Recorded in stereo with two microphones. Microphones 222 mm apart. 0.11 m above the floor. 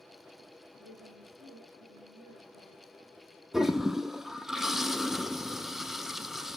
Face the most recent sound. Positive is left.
turn(degrees=0)  # may be behind; listen again after turning